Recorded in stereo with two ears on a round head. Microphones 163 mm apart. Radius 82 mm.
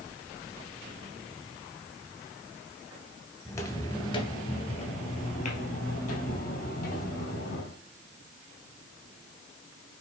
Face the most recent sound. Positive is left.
turn(degrees=55)  # may be behind; listen again after turning